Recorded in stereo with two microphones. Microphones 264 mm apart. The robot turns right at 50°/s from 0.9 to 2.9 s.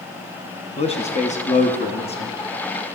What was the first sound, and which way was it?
A man speaking, 25° left (ahead or behind).